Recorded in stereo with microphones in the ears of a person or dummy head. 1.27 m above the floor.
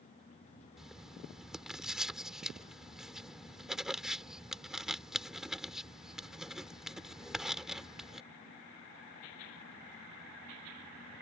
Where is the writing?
Centre (ahead or behind).